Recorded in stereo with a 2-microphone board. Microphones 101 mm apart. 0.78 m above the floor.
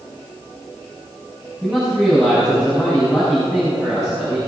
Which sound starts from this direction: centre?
A man speaking, at 1.6 s.